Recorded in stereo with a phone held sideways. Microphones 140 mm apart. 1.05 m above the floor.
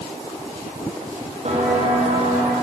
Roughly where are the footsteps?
Right.